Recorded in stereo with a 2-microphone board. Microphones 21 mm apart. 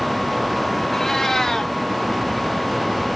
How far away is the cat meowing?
About 1.5 m.